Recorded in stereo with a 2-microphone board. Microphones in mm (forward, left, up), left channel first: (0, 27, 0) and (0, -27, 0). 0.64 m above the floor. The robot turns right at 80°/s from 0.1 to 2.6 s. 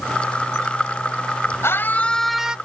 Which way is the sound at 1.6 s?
125° left.